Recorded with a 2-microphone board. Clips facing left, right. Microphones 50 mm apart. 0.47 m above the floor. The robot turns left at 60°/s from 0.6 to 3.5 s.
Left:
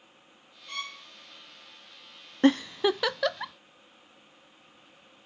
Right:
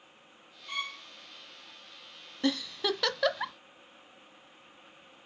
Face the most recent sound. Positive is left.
turn(degrees=-15)  # may be behind; listen again after turning